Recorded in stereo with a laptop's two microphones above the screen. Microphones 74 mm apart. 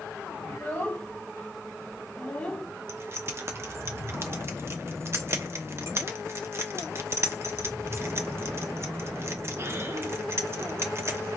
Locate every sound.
0.5 s a child speaking: 35° left (ahead or behind), 2.5 m; by 2.6 s 15° left (ahead or behind), 0.9 m
2.9 s keys jangling: 35° right (ahead or behind), 0.9 m